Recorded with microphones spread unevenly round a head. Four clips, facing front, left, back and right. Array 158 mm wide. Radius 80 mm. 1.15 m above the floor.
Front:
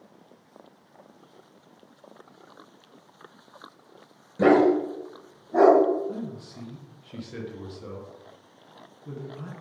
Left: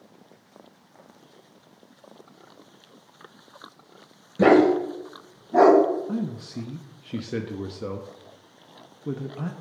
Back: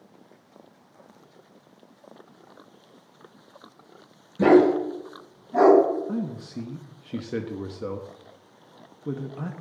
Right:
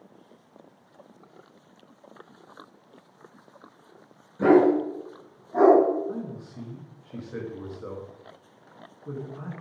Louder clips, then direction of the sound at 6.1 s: Left 5 dB, back 5 dB; 130° left.